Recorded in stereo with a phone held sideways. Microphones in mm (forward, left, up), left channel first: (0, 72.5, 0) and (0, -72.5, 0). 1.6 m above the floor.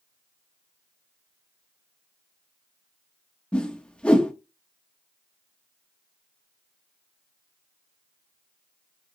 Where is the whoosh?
10° left (ahead or behind), 0.9 m.